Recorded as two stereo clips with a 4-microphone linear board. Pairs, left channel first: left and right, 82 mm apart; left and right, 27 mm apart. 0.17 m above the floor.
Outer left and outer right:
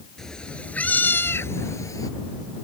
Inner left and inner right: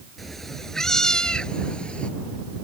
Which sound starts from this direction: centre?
A cat meowing, at 0.2 s.